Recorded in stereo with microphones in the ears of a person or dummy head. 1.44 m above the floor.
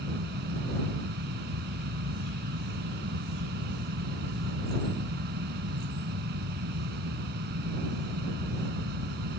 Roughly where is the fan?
Right.